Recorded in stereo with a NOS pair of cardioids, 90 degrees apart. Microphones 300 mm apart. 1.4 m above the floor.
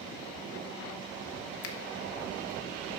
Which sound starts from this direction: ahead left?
A finger snap, at 1.6 s.